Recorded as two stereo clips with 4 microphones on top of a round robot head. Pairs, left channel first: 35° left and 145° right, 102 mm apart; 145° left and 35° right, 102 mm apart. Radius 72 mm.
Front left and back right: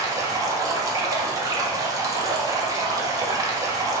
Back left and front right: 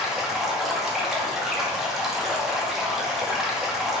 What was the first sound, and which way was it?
Running water, 125° right.